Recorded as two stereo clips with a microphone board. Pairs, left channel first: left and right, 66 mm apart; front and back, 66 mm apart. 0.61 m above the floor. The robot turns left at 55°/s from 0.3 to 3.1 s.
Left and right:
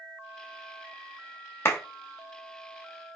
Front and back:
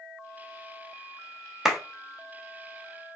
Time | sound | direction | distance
1.6 | a clap | 105° left | 0.6 m